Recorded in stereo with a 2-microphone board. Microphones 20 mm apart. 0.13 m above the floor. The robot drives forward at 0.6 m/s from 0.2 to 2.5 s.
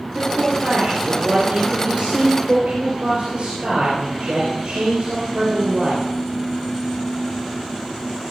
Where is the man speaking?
55° right (ahead or behind), 4 m; by 6.0 s 60° right (ahead or behind), 3.5 m.